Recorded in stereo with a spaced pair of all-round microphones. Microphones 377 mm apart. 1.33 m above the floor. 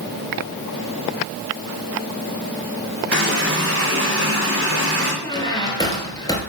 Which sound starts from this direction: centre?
A squeak, at 5.2 s.